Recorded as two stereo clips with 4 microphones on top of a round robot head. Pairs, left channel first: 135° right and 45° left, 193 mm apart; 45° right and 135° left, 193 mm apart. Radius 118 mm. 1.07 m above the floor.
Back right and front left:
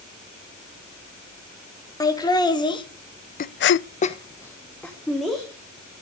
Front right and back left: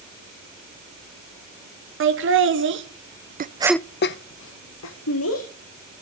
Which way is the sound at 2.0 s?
155° left.